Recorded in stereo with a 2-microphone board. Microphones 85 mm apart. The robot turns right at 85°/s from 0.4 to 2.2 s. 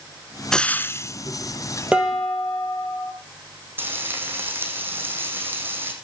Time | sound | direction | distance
0.5 | frying | 5° left (ahead or behind) | 0.7 m
1.9 | dishes clattering | 15° right (ahead or behind) | 2.5 m
3.8 | frying | 25° right (ahead or behind) | 4 m